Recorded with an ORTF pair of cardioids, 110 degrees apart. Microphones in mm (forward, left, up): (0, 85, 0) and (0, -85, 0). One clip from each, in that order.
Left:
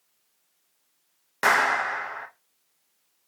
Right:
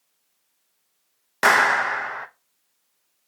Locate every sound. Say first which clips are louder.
1.4 s a clap: right 4 dB; 25° right, 0.6 m